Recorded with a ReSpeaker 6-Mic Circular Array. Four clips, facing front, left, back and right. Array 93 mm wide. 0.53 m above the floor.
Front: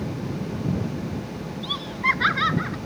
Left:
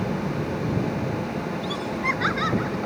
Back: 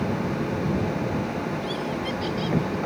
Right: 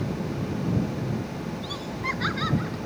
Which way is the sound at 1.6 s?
15° left.